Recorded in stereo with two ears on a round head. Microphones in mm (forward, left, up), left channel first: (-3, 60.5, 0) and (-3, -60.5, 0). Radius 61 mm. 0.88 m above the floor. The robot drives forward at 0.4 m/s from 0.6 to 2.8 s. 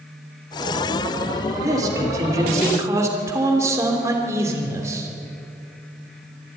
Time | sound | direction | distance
1.6 | a man speaking | 25° right (ahead or behind) | 2.5 m